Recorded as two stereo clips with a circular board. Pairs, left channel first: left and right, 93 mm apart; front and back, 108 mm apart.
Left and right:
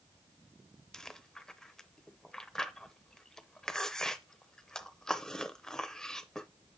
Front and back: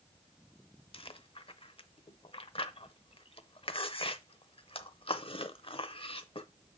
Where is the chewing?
10° left, 0.6 m.